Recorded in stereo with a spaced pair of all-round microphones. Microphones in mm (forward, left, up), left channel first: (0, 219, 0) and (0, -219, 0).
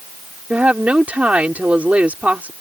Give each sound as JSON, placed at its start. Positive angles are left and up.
{"t": 0.5, "sound": "a woman speaking", "side_deg": -5}